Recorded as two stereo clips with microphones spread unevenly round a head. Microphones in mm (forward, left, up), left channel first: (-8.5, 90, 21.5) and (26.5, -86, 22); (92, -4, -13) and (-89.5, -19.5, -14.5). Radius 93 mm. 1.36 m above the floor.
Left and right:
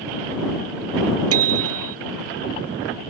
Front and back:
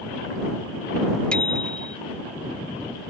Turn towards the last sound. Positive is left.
turn(degrees=-80)